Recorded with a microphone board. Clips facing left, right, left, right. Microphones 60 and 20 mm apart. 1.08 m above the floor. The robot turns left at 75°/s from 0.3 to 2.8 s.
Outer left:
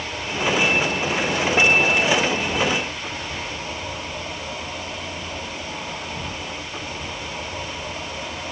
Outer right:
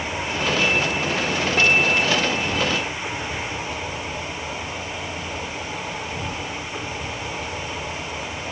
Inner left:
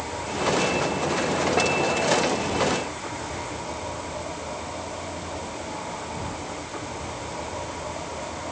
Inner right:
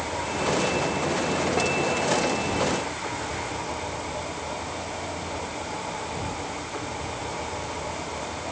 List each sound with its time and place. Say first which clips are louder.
0.0 s an insect: even, even; 160° right, 7.5 m; by 8.5 s 10° left, 7.5 m